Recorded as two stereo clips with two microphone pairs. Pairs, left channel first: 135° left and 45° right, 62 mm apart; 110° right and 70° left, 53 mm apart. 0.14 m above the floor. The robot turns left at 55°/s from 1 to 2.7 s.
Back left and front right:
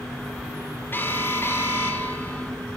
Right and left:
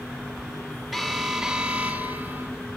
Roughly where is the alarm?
Behind.